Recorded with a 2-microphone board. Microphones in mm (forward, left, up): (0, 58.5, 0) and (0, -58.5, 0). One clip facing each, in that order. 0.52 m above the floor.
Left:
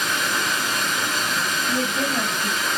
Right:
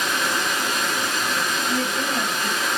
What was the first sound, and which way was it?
Running water, 65° right (ahead or behind).